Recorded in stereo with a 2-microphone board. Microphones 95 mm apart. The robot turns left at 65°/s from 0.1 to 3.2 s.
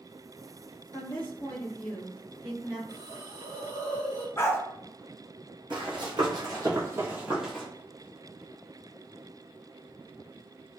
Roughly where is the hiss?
Right.